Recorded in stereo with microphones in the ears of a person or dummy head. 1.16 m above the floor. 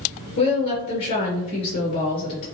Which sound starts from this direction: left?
A woman speaking, at 0.4 s.